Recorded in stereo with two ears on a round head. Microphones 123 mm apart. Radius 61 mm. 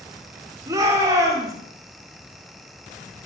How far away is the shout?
About 8 m.